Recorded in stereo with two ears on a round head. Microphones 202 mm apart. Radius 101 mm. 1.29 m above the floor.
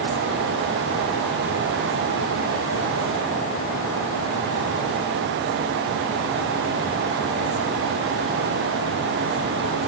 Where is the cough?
I don't hear a cough.